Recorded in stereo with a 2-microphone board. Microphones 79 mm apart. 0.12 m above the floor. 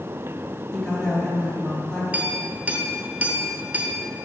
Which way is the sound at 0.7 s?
10° left (ahead or behind).